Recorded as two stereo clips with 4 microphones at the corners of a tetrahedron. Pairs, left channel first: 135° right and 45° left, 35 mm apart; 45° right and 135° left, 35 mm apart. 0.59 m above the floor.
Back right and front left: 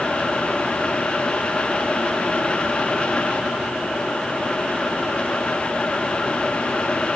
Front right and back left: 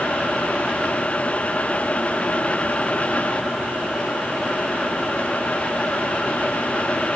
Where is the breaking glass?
No breaking glass in this recording.